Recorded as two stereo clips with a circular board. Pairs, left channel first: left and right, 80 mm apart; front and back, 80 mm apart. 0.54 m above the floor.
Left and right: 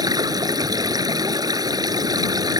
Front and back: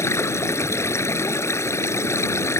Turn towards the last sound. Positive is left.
turn(degrees=-55)